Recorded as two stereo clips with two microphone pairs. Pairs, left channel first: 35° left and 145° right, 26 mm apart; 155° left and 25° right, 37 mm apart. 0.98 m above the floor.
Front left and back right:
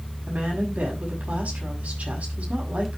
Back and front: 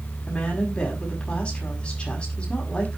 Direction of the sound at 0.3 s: 150° right.